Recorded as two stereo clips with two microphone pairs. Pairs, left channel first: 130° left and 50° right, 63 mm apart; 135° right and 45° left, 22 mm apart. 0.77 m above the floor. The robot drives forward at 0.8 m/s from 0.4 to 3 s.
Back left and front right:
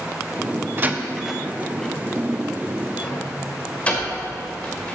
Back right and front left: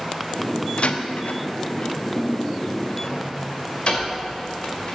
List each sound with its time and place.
0.8 s a door slam: 110° right, 0.5 m; by 5.0 s 165° right, 2.0 m